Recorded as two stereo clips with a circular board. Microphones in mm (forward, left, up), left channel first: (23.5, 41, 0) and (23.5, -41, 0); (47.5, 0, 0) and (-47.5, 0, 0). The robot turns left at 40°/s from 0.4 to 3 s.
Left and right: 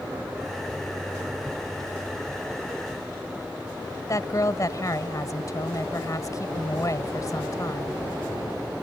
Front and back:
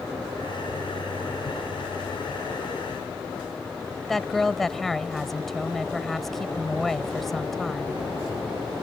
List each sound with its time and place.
4.1 s a woman speaking: 85° left